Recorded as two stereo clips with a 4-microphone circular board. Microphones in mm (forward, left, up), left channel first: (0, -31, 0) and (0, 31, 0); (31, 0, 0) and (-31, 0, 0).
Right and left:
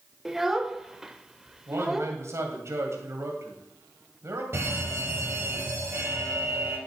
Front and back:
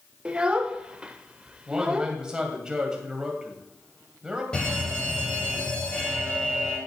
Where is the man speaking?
105° left, 2.5 m.